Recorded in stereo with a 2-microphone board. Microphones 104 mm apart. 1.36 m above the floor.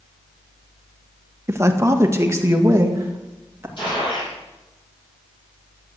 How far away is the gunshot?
About 7 m.